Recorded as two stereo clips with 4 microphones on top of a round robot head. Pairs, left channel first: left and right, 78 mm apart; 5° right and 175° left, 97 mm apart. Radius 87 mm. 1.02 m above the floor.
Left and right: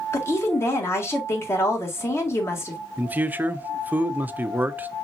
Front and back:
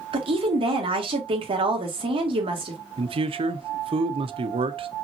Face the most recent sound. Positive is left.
turn(degrees=-160)